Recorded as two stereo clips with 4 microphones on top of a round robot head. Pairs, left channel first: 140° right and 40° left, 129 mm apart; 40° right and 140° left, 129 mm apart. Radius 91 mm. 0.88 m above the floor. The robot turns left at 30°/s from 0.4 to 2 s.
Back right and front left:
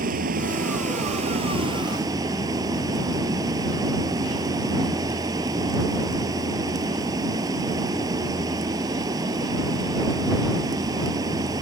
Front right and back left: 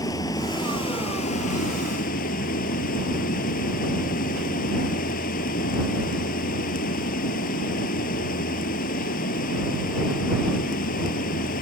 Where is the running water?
25° left; by 11.6 s 25° right.